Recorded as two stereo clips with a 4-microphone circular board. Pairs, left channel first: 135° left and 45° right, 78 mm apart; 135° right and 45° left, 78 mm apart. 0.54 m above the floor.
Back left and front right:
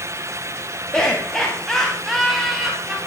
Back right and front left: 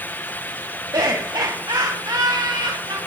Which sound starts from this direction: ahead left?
Laughter, at 0.9 s.